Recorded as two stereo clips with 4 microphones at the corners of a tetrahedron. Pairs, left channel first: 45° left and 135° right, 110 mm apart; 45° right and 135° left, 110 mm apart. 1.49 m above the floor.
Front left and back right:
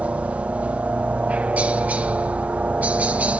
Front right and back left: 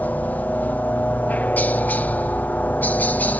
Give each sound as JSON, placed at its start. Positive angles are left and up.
{"t": 0.0, "sound": "a helicopter", "azimuth_deg": -85}